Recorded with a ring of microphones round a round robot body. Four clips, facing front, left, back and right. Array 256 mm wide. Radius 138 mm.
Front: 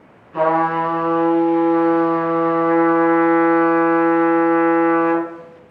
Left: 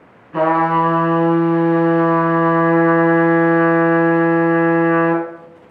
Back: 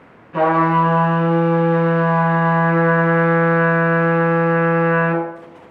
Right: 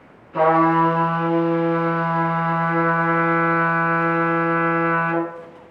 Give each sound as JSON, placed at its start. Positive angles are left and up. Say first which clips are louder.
{"t": 0.3, "sound": "a trumpet", "louder": "left 1 dB, back 2 dB", "azimuth_deg": 115, "distance_m": 4.0}